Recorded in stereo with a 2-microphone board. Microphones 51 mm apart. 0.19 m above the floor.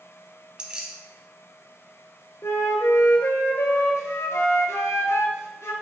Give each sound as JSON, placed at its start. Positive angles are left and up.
{"t": 0.6, "sound": "keys jangling", "side_deg": -20, "distance_m": 0.6}
{"t": 2.4, "sound": "a flute", "side_deg": 70, "distance_m": 0.5}